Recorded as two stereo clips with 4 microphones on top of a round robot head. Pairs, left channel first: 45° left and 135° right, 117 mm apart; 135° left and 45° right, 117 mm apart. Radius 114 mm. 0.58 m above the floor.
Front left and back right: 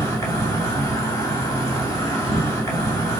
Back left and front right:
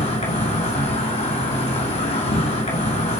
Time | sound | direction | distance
0.0 | an insect | 110° left | 2.5 m